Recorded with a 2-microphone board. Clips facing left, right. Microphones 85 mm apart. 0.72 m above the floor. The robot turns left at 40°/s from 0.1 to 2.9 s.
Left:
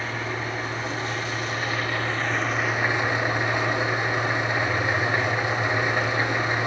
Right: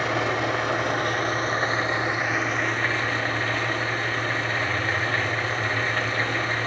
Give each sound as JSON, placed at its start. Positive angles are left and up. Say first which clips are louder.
{"t": 0.0, "sound": "an engine running", "louder": "right 6 dB", "azimuth_deg": -85, "distance_m": 3.5}